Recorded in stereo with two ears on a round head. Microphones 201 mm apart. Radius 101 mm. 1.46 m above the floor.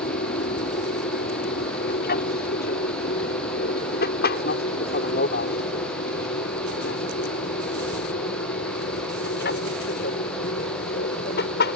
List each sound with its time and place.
0.0 s an aircraft: 40° left (ahead or behind); by 11.8 s 50° left (ahead or behind)